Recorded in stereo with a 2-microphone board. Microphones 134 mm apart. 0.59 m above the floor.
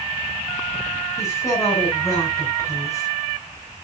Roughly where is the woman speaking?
Left.